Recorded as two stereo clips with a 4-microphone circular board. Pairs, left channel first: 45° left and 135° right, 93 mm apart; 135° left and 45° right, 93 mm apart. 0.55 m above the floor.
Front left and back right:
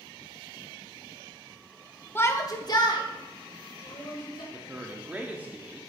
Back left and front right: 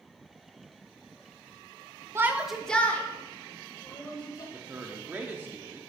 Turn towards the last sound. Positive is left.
turn(degrees=-85)